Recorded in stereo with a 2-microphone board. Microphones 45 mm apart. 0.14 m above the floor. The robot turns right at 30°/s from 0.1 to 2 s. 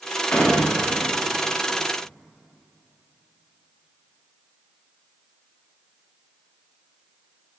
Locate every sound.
0.3 s a door slam: 35° left (ahead or behind), 9 m; by 0.8 s 20° left (ahead or behind), 9 m